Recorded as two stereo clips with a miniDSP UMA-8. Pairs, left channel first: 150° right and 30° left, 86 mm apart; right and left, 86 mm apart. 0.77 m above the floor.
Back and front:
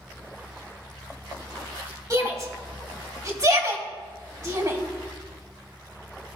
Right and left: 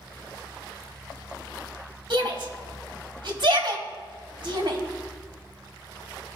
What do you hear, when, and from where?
2.1 s a shout: 75° left, 1.9 m